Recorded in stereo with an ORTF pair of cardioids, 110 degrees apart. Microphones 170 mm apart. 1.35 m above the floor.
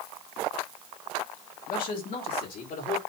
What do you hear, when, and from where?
1.7 s a man speaking: 55° left, 3 m; by 3.0 s 60° left, 5 m